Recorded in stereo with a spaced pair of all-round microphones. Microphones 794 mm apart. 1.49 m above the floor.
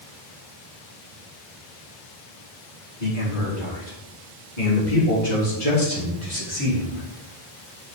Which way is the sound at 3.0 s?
80° left.